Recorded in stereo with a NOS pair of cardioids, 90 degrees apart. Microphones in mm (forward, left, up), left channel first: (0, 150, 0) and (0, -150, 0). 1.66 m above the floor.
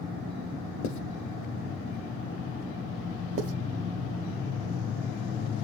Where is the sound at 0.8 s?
70° left, 0.8 m.